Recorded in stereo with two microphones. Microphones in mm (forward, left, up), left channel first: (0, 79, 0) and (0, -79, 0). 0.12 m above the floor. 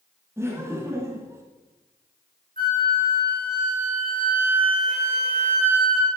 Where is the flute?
60° right (ahead or behind), 3 m.